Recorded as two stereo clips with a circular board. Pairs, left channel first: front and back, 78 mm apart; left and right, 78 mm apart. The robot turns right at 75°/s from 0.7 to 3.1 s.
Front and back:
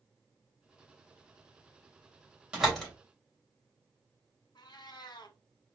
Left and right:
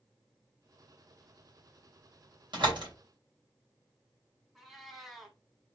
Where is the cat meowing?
5° right, 1.3 m.